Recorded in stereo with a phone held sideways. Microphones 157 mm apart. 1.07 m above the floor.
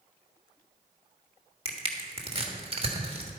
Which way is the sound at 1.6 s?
40° right (ahead or behind).